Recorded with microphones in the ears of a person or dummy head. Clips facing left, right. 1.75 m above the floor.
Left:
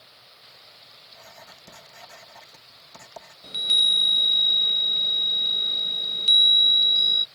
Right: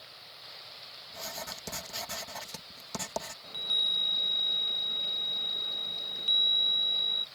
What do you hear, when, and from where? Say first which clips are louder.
1.1 s writing: right 7 dB; 80° right
3.4 s a chime: left 5 dB; 25° left (ahead or behind)